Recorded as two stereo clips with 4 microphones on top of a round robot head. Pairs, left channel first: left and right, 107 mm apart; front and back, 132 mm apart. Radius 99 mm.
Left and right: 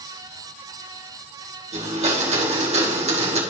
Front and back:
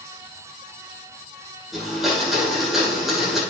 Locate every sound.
1.7 s a blender: 95° right, 2.5 m